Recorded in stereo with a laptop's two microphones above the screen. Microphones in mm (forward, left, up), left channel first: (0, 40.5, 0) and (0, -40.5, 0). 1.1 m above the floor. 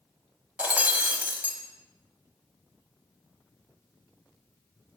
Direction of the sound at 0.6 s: 20° right (ahead or behind).